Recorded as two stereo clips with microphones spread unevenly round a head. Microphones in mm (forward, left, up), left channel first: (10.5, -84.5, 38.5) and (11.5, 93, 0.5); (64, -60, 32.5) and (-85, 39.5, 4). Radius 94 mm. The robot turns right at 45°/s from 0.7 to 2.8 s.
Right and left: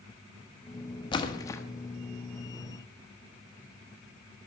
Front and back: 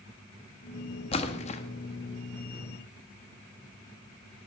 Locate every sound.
1.1 s a splash: 55° right, 1.0 m; by 1.6 s 35° right, 1.0 m